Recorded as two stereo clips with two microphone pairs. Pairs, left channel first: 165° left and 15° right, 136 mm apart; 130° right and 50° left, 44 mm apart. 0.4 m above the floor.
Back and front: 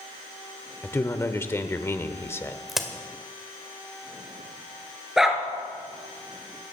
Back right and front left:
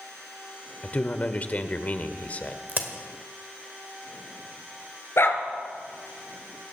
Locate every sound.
0.8 s a man speaking: 135° right, 1.1 m
2.7 s a crack: 75° left, 1.7 m
5.2 s a dog barking: 100° right, 2 m